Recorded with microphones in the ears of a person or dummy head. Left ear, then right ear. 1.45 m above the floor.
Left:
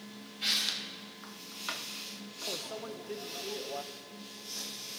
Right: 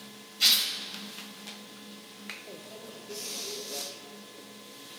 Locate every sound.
0.4 s tearing paper: 45° right (ahead or behind), 4.5 m
2.5 s a microwave: 50° left (ahead or behind), 0.9 m